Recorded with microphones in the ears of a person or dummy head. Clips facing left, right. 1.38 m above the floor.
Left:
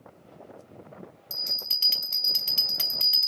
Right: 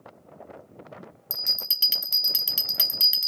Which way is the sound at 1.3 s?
15° right (ahead or behind).